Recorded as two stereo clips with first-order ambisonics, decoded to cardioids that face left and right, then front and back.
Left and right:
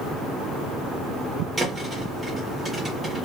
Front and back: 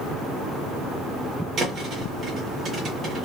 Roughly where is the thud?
Behind.